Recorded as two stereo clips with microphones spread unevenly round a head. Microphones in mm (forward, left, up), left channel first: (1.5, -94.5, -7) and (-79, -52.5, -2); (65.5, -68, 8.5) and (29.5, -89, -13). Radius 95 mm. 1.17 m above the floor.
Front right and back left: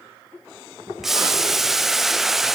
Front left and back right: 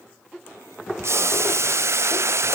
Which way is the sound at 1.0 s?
120° right.